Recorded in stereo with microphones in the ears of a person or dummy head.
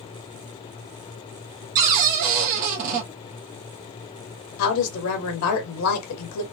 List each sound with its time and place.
1.8 s a cupboard door: 40° right (ahead or behind), 0.8 m
4.6 s a woman speaking: 75° left (ahead or behind), 0.9 m